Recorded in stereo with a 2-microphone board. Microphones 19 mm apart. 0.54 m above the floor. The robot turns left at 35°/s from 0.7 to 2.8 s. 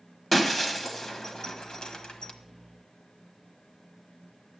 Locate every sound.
0.3 s breaking glass: 15° left (ahead or behind), 1.3 m; by 2.3 s 70° left (ahead or behind), 1.3 m